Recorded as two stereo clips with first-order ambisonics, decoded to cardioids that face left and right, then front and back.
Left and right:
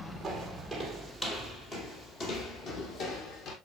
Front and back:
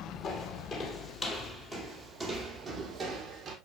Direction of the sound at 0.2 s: 10° right.